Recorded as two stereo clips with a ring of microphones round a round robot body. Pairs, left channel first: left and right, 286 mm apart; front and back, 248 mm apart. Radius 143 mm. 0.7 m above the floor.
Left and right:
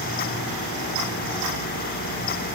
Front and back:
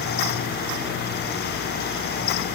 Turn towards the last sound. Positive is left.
No sound to turn to.